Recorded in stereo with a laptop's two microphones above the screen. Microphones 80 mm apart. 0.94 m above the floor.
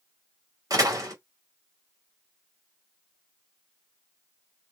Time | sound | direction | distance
0.7 | a door slam | 50° right (ahead or behind) | 1.8 m